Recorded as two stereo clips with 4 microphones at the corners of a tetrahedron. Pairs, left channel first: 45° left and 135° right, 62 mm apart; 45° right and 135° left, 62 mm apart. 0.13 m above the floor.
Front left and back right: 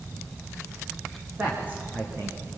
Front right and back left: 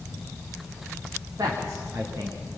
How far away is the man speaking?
About 9 m.